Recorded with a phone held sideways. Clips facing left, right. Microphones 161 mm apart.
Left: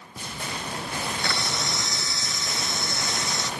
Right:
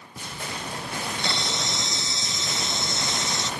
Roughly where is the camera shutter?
Right.